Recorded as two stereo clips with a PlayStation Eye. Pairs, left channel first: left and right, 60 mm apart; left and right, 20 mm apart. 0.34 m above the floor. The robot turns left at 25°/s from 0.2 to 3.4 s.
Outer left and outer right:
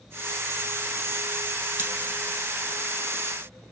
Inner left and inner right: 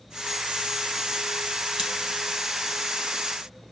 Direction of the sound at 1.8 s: 35° right (ahead or behind).